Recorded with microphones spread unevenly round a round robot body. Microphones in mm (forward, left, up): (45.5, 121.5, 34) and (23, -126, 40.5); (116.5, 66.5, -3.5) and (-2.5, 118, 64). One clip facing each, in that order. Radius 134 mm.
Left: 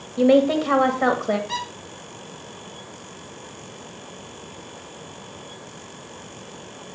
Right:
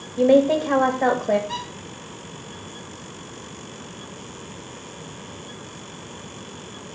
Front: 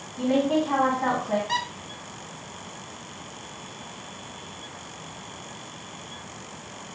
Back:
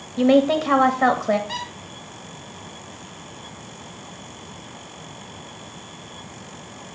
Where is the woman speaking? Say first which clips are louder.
Even, back 6 dB; 160° left, 1.6 m.